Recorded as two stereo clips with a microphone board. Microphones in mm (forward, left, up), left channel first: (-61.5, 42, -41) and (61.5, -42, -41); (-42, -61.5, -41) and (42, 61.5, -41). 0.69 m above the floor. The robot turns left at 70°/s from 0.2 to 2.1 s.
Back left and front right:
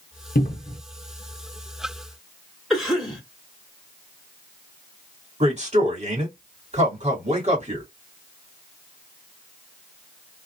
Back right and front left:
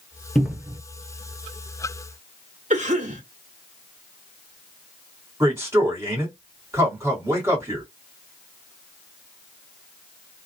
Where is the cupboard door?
150° left, 0.7 m; by 0.8 s 120° left, 0.7 m.